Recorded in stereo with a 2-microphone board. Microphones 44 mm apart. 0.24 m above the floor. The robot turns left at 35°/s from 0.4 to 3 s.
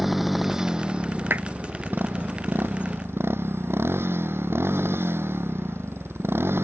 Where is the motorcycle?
5° right; by 6.7 s 95° right.